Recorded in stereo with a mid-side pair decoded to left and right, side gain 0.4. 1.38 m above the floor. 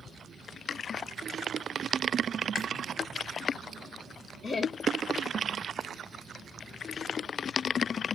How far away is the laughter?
About 0.6 m.